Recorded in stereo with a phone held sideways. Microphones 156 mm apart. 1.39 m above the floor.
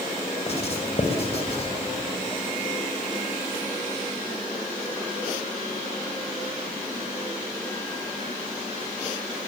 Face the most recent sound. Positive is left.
turn(degrees=45)  # may be behind; listen again after turning